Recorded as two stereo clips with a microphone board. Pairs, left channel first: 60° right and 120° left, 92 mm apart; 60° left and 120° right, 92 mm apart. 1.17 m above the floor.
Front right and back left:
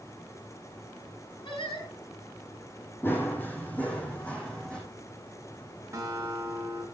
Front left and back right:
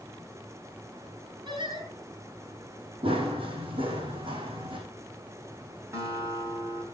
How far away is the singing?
About 6 m.